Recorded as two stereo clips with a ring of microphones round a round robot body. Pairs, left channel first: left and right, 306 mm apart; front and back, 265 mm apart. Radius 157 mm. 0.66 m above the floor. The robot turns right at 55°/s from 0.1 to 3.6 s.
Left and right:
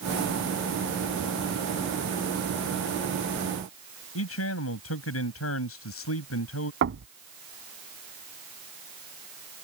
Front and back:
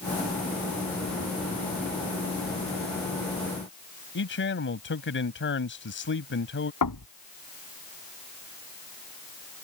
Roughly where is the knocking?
Ahead right.